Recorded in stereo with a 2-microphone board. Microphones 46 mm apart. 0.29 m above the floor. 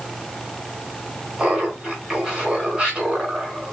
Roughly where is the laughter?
Centre.